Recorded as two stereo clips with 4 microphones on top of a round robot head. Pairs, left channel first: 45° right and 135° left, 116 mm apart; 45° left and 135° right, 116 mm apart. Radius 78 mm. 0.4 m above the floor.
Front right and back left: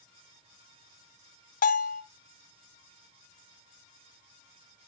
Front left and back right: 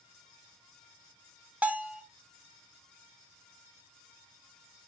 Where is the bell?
55° right, 0.8 m.